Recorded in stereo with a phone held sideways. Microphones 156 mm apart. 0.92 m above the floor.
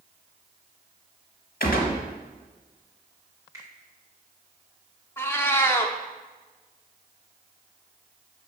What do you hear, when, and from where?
1.6 s a gunshot: 75° left (ahead or behind), 1.2 m
3.5 s a finger snap: 20° right (ahead or behind), 1.7 m
5.2 s a cat meowing: 15° left (ahead or behind), 0.5 m